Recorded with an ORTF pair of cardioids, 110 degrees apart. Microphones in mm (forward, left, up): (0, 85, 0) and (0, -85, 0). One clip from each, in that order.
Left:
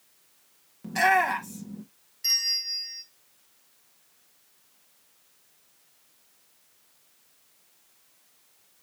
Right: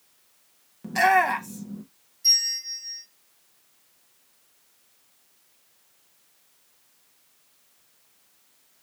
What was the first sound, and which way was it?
A shout, 10° right.